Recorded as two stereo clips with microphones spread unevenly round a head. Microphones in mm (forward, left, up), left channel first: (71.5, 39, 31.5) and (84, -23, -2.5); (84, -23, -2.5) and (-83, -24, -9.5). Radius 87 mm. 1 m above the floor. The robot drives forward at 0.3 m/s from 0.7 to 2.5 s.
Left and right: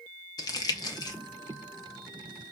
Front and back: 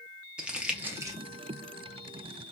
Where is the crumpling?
110° left, 0.6 m; by 1.2 s 135° left, 0.6 m.